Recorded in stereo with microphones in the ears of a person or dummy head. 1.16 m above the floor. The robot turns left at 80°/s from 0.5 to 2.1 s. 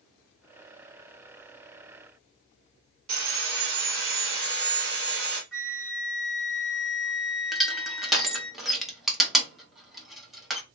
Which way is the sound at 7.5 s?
5° right (ahead or behind).